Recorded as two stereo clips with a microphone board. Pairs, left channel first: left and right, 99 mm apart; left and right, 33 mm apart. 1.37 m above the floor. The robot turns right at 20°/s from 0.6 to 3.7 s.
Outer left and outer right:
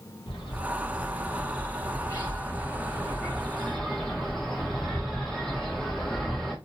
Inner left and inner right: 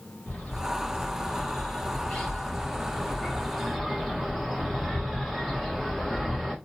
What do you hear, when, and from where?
0.3 s a bird: 115° left, 1.5 m; by 6.5 s 175° left, 1.5 m